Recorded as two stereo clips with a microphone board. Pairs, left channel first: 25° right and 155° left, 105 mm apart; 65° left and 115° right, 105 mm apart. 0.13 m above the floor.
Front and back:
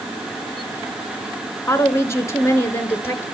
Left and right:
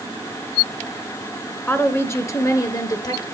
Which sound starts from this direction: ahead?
A woman speaking, at 1.7 s.